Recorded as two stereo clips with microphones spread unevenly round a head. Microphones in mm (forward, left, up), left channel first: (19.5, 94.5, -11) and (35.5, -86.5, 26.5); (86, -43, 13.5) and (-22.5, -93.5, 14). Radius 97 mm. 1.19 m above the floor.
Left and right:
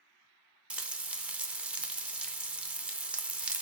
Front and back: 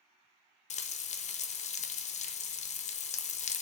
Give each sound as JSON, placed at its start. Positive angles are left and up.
{"t": 0.7, "sound": "frying", "azimuth_deg": 0, "distance_m": 0.6}